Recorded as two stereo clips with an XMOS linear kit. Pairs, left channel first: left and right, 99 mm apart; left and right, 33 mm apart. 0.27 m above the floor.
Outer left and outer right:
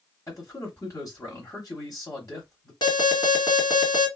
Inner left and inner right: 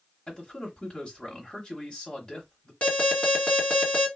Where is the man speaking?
35° left (ahead or behind), 1.1 m.